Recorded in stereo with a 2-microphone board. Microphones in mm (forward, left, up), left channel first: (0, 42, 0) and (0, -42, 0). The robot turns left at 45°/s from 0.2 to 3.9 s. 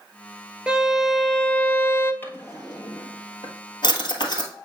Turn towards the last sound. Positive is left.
turn(degrees=55)  # may be behind; listen again after turning